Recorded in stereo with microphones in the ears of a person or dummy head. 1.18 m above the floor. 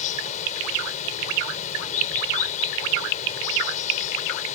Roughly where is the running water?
Left.